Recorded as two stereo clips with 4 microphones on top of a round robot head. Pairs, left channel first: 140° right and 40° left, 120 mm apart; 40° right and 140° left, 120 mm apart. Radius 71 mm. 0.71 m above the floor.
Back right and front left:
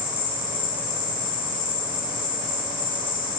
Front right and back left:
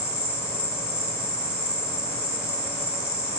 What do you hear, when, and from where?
0.0 s an insect: 140° right, 6.5 m